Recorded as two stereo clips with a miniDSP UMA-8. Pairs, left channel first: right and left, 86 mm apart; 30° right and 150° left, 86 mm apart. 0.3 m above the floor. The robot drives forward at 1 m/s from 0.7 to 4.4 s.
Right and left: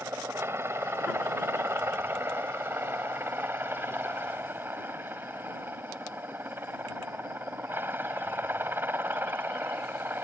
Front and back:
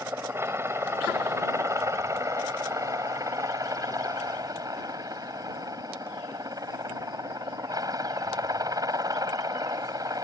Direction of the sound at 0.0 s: 120° left.